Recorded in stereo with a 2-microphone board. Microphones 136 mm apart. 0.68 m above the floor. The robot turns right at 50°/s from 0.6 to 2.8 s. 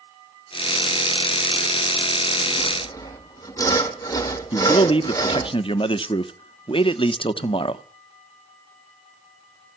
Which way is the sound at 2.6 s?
35° left (ahead or behind).